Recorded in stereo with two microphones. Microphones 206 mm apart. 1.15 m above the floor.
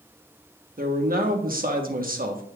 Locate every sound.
0.8 s a man speaking: 45° right (ahead or behind), 1.2 m